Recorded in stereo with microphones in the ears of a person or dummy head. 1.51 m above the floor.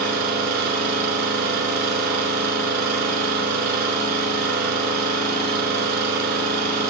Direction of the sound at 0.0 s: 55° right (ahead or behind).